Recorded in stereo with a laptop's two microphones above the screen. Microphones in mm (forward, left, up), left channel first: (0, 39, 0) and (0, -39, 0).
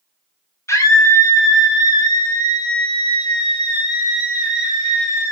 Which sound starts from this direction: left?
A scream, at 0.7 s.